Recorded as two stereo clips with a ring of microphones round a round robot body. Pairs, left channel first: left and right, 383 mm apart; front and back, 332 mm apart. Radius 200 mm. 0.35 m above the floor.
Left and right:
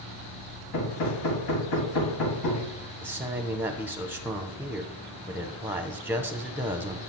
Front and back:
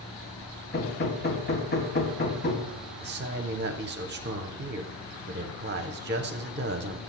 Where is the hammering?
60° left, 2.5 m.